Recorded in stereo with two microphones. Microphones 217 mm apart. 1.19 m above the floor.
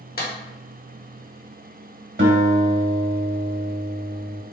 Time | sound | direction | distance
0.2 | a clap | 45° left (ahead or behind) | 0.8 m
2.2 | a guitar | 55° right (ahead or behind) | 1.1 m